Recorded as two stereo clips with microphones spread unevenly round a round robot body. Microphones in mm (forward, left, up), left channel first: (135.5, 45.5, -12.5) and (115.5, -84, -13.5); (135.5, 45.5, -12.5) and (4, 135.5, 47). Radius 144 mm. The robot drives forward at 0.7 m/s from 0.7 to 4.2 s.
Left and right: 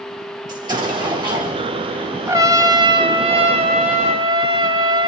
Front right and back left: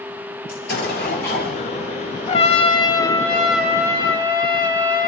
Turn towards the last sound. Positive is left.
turn(degrees=-135)